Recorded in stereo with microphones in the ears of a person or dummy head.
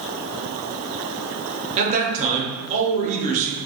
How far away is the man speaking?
About 0.9 m.